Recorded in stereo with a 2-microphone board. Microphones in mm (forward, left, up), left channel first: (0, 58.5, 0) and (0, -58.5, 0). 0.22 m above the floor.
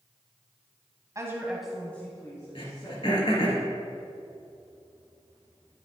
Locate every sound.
1.1 s a woman speaking: 30° right (ahead or behind), 1.1 m; by 3.5 s 45° left (ahead or behind), 2.5 m
2.5 s throat clearing: 55° left (ahead or behind), 2.5 m